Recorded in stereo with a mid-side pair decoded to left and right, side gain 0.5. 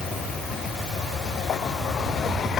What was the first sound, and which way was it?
Only background noise.